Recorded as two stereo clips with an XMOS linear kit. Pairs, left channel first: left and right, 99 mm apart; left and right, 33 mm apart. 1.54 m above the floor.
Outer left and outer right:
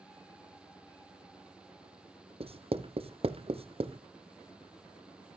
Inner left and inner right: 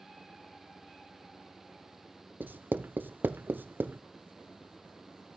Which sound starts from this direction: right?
Writing, at 2.4 s.